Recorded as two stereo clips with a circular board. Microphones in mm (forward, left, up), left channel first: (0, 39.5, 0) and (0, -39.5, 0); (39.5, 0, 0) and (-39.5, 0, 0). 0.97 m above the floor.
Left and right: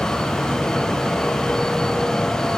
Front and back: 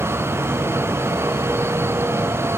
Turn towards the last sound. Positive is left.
No sound to turn to.